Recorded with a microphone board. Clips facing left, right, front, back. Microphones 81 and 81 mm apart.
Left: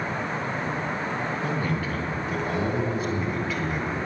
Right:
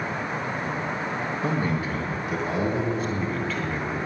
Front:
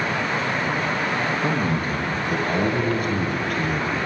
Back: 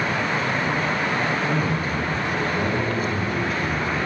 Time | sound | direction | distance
1.4 | a man speaking | 30° right | 2.5 m